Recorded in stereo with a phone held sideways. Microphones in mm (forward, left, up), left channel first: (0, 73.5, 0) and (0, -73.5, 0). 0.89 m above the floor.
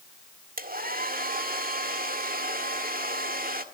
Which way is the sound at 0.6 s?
85° right.